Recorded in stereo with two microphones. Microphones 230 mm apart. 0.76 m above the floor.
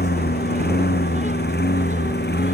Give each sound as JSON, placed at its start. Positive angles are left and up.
{"t": 0.0, "sound": "a lawn mower", "side_deg": 45}